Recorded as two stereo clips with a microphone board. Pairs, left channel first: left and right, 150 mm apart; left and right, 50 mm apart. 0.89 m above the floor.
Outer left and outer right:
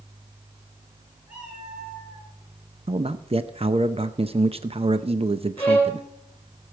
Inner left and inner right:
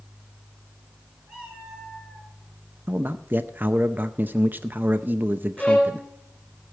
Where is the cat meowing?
10° right (ahead or behind), 6 m; by 2.3 s 15° right (ahead or behind), 5 m.